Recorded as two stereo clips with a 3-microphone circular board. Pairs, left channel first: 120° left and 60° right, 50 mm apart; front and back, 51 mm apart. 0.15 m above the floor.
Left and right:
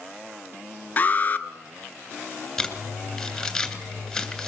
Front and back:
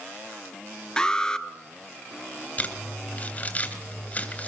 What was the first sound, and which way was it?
An alarm, 70° left.